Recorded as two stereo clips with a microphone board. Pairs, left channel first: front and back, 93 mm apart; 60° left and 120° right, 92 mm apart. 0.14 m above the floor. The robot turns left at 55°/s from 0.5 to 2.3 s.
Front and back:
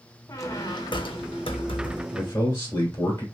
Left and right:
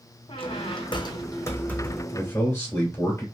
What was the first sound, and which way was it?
A squeak, 50° left.